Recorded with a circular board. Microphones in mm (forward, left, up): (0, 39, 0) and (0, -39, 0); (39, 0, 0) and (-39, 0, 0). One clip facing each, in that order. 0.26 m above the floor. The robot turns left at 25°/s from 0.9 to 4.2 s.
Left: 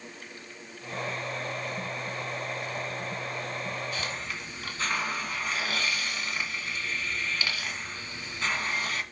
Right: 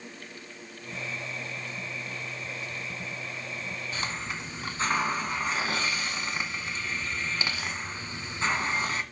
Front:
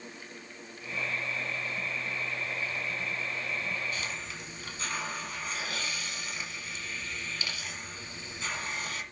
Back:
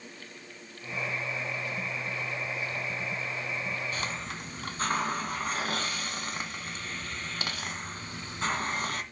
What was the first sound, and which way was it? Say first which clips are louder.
A hiss: right 1 dB, back 3 dB; 145° right.